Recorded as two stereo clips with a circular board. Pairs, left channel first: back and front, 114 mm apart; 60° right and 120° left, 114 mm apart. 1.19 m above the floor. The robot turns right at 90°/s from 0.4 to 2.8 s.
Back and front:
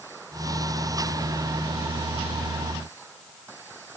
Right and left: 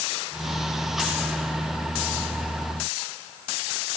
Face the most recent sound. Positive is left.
No sound to turn to.